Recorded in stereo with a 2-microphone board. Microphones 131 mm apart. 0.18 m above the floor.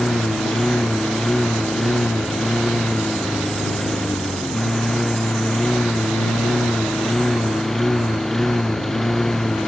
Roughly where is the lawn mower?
Centre.